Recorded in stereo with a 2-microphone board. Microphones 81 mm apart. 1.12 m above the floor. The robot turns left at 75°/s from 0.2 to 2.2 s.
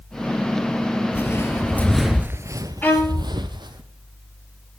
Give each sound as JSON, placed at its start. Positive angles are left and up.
{"t": 1.1, "sound": "footsteps", "side_deg": 25, "distance_m": 1.7}
{"t": 2.8, "sound": "a violin", "side_deg": 25, "distance_m": 6.5}